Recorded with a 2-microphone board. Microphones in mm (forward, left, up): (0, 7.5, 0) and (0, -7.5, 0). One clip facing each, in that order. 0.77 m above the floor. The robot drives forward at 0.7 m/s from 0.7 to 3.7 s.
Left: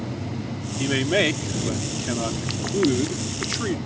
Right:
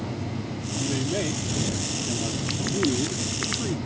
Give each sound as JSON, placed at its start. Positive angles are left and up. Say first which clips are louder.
{"t": 0.8, "sound": "a man speaking", "louder": "left 7 dB", "side_deg": 55}